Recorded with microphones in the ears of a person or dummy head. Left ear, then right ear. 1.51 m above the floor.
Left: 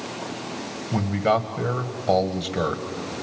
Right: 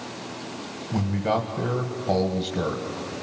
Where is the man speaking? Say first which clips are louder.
Left 4 dB; 30° left (ahead or behind), 1.6 m.